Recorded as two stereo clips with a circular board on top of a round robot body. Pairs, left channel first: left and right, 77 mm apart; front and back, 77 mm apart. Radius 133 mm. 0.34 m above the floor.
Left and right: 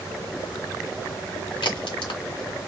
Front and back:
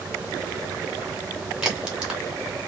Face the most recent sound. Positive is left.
turn(degrees=100)